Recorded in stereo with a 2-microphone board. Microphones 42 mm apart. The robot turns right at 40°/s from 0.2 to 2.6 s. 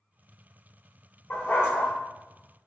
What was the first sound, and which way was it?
A dog barking, 55° left (ahead or behind).